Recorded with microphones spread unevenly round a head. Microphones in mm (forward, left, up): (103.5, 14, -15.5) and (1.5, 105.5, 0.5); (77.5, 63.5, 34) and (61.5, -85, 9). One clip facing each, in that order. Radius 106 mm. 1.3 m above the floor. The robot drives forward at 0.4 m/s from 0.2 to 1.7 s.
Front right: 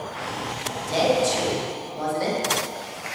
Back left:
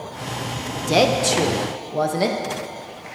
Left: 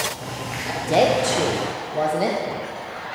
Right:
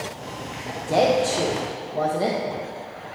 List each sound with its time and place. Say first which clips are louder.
0.9 s a woman speaking: back left 3 dB, left 1 dB; 160° left, 0.8 m; by 2.4 s 165° left, 1.1 m